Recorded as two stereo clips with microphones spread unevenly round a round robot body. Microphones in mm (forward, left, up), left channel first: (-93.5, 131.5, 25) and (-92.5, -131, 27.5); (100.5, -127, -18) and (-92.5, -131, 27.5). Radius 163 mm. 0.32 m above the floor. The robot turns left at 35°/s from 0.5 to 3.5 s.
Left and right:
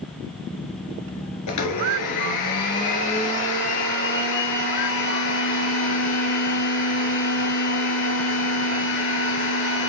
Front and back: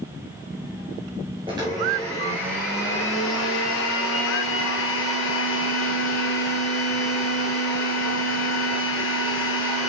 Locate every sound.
1.5 s a blender: 105° left, 1.7 m; by 9.9 s 35° left, 1.7 m